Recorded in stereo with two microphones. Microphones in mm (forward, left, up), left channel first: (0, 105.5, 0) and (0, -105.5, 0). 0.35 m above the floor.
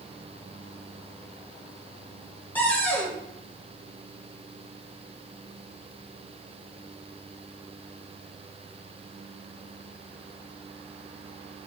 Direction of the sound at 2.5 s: 10° left (ahead or behind).